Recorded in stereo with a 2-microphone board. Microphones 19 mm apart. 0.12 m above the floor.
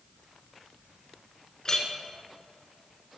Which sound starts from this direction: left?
A clink, at 1.6 s.